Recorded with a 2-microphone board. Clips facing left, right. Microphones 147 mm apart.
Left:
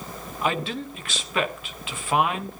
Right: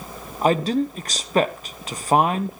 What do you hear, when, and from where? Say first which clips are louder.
0.4 s a man speaking: right 8 dB; 40° right (ahead or behind), 1.2 m